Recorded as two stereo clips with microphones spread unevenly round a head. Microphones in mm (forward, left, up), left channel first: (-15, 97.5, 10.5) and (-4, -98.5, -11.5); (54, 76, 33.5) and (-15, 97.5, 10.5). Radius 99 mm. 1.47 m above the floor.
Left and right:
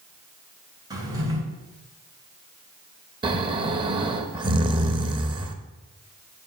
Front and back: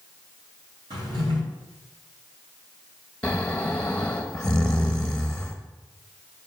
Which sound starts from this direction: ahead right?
Snoring, at 3.2 s.